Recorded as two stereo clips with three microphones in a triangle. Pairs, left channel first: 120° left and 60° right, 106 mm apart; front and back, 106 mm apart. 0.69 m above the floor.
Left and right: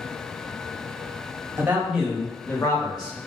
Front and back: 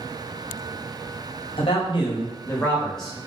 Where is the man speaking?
5° left, 0.9 m; by 3.2 s 95° left, 0.9 m.